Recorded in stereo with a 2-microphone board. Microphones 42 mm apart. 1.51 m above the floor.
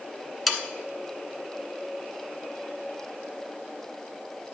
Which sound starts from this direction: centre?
Sawing, at 0.5 s.